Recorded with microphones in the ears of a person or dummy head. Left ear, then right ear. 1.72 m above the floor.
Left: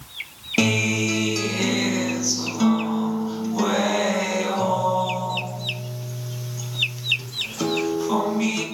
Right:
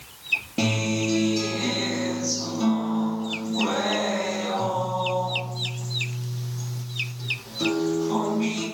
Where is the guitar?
70° left (ahead or behind), 0.7 m.